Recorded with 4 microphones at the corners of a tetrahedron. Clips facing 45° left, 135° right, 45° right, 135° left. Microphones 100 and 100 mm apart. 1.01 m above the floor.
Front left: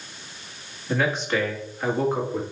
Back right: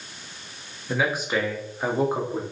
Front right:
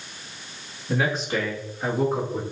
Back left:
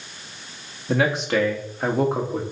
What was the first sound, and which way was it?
A man speaking, 140° left.